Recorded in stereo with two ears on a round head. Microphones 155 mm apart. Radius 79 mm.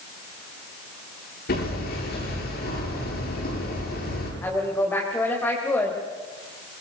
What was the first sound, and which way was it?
Hammering, 65° left (ahead or behind).